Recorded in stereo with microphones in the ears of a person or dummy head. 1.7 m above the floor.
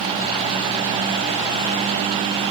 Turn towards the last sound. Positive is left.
No sound to turn to.